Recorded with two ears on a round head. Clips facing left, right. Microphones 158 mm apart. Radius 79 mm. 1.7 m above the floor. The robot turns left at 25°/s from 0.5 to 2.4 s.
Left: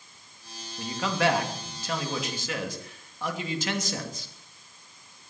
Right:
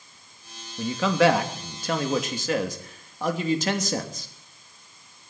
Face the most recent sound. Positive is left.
turn(degrees=-140)